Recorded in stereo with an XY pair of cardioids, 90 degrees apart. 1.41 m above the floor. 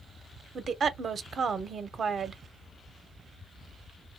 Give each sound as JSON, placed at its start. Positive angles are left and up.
{"t": 0.6, "sound": "a woman speaking", "azimuth_deg": -50, "distance_m": 0.8}